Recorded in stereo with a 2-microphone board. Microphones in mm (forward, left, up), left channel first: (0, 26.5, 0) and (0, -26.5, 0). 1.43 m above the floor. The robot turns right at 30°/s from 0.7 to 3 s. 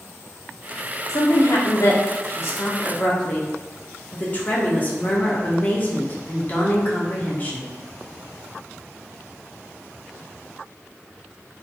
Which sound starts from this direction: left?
A woman speaking, at 1.1 s.